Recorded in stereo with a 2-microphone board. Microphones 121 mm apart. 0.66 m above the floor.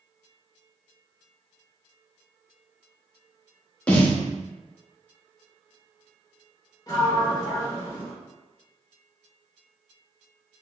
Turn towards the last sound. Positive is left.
turn(degrees=30)  # may be behind; listen again after turning